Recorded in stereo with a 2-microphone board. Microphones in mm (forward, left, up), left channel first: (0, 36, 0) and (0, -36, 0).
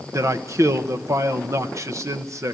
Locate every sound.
0.1 s a man speaking: 45° right (ahead or behind), 1.1 m